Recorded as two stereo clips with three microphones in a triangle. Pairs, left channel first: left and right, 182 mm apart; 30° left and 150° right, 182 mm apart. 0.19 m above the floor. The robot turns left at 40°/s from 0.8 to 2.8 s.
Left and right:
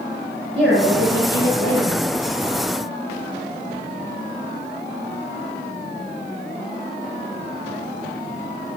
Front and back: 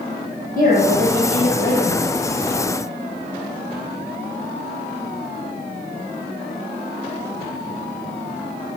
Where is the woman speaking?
Straight ahead, 3.5 m; by 2.1 s 50° right, 3.5 m.